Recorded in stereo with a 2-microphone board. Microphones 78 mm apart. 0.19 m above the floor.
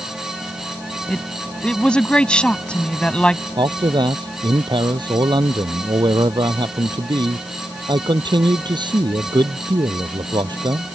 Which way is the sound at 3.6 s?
75° right (ahead or behind).